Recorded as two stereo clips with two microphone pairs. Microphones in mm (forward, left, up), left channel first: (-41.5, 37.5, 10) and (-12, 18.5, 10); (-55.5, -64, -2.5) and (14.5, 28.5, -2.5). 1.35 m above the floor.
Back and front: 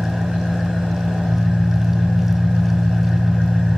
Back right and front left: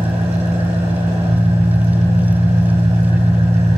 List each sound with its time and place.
0.0 s an engine running: 45° left, 5 m